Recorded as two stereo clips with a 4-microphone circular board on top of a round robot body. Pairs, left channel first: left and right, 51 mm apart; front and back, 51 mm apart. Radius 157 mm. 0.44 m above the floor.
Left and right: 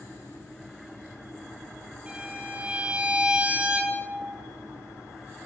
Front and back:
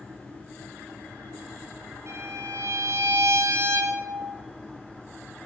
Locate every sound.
2.1 s a violin: 155° right, 4.5 m